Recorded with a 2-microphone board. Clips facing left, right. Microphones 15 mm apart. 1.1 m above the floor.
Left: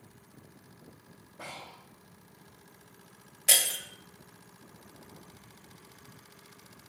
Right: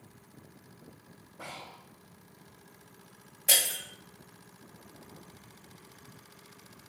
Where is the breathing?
20° left (ahead or behind), 1.8 m.